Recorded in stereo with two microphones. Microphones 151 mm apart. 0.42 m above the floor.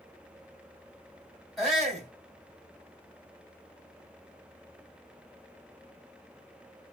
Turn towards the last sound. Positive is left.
turn(degrees=0)  # may be behind; listen again after turning